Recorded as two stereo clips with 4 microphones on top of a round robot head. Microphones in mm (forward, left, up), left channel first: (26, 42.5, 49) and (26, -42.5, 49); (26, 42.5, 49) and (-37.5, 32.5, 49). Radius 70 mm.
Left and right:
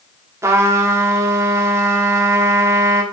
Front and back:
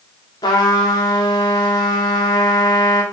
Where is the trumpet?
30° right, 3.5 m.